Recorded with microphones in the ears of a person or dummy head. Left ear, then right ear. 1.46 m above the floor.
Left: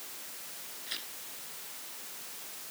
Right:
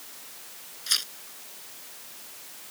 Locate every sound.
0.9 s tearing paper: 55° right (ahead or behind)